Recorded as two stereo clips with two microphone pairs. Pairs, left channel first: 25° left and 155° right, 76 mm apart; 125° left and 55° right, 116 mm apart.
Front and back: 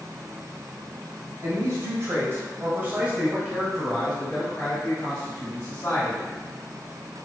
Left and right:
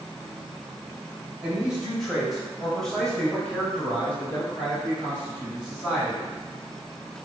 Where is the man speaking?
140° right, 1.5 m; by 6.3 s 50° left, 1.6 m.